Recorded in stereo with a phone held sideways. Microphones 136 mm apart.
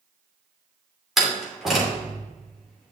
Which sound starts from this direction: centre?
A door slam, at 1.2 s.